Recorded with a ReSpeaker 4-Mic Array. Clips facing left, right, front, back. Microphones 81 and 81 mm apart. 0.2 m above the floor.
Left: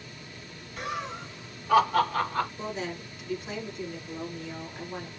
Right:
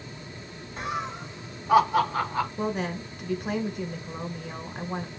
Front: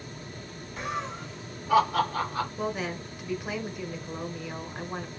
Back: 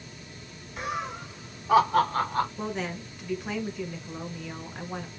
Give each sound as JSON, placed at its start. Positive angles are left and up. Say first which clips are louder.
{"t": 0.8, "sound": "laughter", "louder": "right 2 dB, back 1 dB", "azimuth_deg": -100, "distance_m": 1.9}
{"t": 2.6, "sound": "a woman speaking", "louder": "right 5 dB, front 1 dB", "azimuth_deg": -80, "distance_m": 1.8}